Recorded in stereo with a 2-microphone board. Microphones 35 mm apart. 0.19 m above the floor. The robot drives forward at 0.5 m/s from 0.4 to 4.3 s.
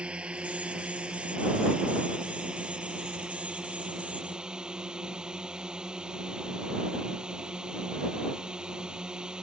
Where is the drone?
35° right (ahead or behind); by 9.4 s 25° right (ahead or behind).